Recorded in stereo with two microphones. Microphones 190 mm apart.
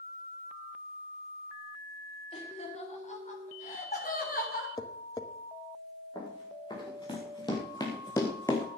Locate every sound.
2.3 s laughter: 35° left (ahead or behind), 4 m; by 4.7 s 55° left (ahead or behind), 3.5 m
4.8 s tapping: 20° left (ahead or behind), 1.1 m
6.2 s running footsteps: 25° left (ahead or behind), 4.5 m; by 8.7 s 15° left (ahead or behind), 2.5 m